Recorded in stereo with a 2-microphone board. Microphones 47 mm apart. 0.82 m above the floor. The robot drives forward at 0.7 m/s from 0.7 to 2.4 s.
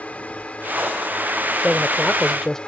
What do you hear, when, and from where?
0.0 s a drone: 30° left (ahead or behind); by 2.7 s 25° left (ahead or behind)
1.6 s a man speaking: 10° left (ahead or behind)